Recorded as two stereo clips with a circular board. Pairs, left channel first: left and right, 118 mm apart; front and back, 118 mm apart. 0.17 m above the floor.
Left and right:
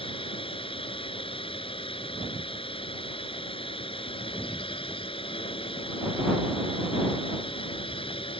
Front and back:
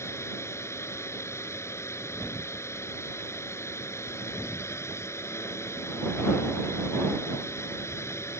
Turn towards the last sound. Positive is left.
turn(degrees=65)